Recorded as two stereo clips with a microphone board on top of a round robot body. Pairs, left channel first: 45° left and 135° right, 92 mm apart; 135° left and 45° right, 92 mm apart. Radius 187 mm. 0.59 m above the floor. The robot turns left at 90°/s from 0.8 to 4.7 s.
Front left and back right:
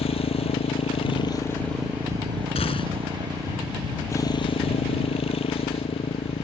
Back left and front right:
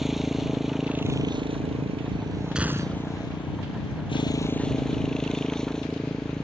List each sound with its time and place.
0.0 s a motorcycle: 45° left; by 6.4 s 50° left
2.5 s a gunshot: 40° left; by 3.2 s 25° right